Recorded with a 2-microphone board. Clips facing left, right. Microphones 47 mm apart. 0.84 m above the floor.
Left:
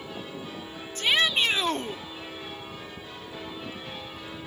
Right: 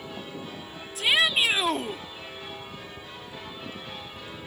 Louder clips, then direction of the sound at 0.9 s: Right 1 dB; 5° right (ahead or behind).